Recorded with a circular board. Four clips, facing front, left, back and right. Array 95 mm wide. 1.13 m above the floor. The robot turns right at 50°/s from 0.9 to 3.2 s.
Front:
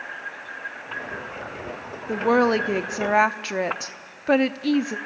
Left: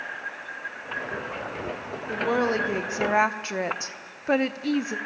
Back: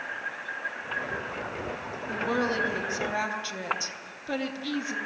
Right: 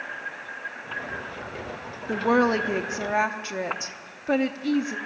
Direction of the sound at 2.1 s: 35° right.